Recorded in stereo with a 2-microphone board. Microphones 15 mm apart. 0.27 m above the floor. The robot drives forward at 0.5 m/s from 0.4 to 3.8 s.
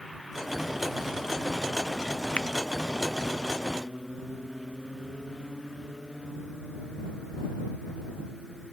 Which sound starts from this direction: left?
A finger snap, at 2.4 s.